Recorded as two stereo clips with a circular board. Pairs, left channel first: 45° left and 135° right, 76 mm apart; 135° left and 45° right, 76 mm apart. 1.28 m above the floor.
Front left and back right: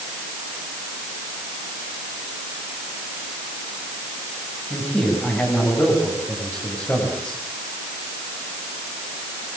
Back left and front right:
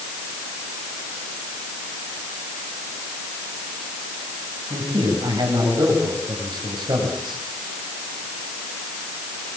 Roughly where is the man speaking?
Ahead.